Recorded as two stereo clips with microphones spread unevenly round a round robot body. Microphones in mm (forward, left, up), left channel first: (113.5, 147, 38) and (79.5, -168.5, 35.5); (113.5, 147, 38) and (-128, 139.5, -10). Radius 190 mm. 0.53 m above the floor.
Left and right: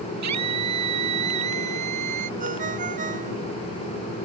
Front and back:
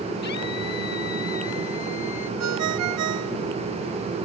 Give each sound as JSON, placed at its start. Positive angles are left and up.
{"t": 0.2, "sound": "a scream", "azimuth_deg": -65}
{"t": 2.4, "sound": "a ringtone", "azimuth_deg": -165}